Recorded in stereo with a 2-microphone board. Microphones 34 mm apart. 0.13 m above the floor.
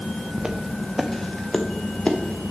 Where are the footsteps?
20° right (ahead or behind), 1.1 m; by 2.2 s 35° left (ahead or behind), 1.5 m.